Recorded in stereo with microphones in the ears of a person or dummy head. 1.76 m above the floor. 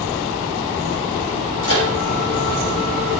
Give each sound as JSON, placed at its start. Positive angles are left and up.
{"t": 1.6, "sound": "a microwave", "side_deg": 70, "distance_m": 6.5}